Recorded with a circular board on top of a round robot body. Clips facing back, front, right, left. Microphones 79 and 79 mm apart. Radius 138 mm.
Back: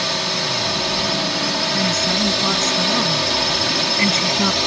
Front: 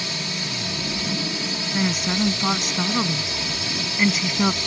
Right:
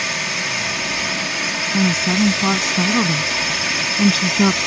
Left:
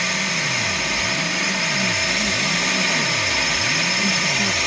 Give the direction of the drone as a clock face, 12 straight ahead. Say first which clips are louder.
Back 7 dB, even; 6 o'clock.